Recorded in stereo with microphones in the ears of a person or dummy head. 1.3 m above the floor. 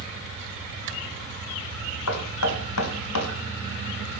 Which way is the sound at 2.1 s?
85° left.